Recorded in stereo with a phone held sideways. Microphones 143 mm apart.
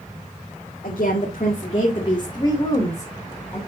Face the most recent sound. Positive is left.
turn(degrees=10)  # may be behind; listen again after turning